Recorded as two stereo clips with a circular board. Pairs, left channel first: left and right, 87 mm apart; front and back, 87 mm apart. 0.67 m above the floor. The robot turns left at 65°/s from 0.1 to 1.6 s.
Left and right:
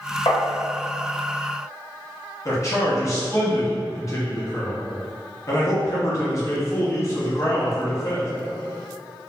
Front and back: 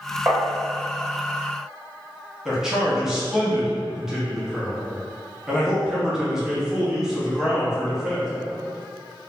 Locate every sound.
0.3 s tapping: 120° left, 0.6 m; by 0.4 s 110° left, 0.6 m
2.5 s a man speaking: 100° left, 0.7 m